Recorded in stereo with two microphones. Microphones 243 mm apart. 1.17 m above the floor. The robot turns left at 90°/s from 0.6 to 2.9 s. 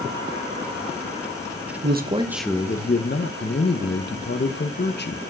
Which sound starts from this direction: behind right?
A man speaking, at 1.8 s.